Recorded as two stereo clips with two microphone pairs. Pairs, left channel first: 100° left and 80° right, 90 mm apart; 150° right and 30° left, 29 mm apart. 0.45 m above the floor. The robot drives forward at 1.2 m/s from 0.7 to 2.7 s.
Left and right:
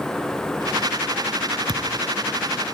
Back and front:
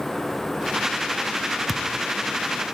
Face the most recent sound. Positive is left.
turn(degrees=-120)